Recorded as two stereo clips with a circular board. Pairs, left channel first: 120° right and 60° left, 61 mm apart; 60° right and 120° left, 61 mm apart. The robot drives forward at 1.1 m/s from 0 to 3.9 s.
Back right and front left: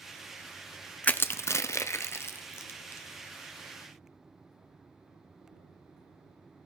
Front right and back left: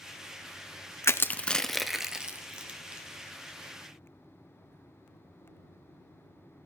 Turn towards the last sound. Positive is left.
turn(degrees=-170)